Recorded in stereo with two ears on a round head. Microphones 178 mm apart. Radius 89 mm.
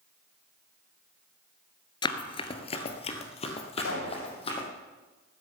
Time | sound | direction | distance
2.0 | running footsteps | 20° left (ahead or behind) | 1.3 m
3.8 | a pop | 85° left | 8.5 m